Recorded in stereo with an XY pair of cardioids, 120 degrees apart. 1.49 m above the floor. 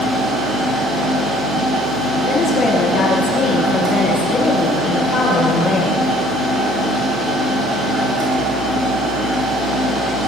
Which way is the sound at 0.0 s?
55° right.